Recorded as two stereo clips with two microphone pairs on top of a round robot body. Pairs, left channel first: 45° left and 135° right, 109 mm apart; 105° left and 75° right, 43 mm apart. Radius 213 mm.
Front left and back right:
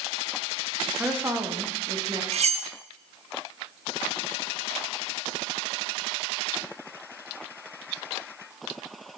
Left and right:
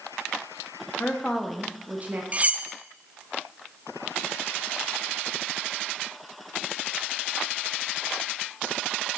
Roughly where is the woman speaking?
Behind left.